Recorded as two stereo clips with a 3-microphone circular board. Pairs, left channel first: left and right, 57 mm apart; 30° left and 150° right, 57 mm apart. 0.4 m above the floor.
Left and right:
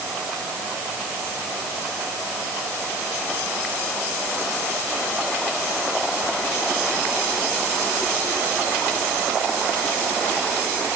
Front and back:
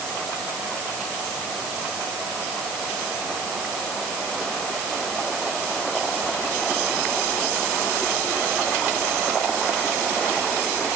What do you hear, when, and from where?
Only background noise.